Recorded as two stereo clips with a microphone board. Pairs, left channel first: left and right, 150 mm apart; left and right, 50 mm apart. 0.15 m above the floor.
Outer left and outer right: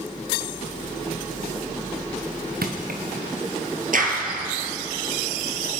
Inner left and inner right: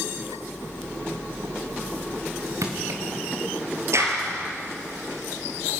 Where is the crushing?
80° right, 2.5 m.